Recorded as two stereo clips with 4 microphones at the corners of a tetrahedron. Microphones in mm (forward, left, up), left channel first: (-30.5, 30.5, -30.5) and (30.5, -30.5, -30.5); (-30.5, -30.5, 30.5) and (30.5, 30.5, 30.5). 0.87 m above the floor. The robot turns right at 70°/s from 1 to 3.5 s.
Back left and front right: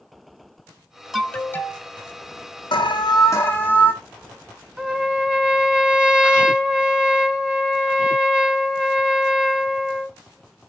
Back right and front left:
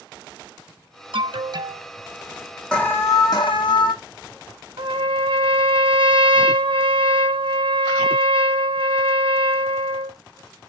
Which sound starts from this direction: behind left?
An alarm, at 2.7 s.